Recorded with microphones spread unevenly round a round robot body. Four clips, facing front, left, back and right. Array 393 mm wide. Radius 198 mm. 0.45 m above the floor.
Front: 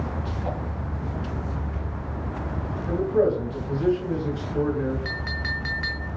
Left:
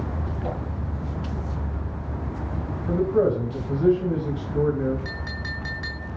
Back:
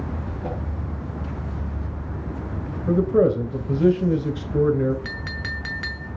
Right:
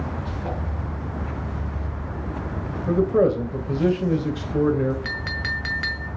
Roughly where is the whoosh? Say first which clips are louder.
Left 1 dB, back 1 dB; behind.